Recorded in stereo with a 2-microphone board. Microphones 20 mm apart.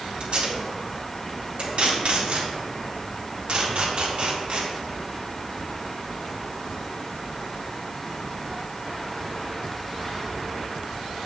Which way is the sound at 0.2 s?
70° right (ahead or behind).